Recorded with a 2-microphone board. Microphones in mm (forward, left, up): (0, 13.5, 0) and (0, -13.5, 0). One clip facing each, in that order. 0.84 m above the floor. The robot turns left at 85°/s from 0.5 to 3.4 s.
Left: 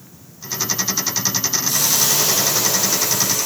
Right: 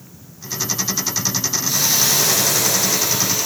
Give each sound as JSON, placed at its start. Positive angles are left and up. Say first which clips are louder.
{"t": 1.7, "sound": "a hiss", "louder": "right 2 dB", "azimuth_deg": -10, "distance_m": 2.5}